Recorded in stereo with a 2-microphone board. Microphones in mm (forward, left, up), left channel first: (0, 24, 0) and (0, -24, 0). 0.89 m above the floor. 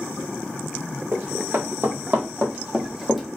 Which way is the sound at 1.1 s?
60° right (ahead or behind).